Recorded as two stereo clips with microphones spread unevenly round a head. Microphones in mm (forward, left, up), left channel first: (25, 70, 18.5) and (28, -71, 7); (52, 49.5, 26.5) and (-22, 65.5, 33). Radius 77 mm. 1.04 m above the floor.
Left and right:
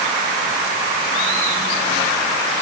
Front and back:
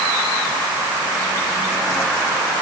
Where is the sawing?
I don't hear sawing.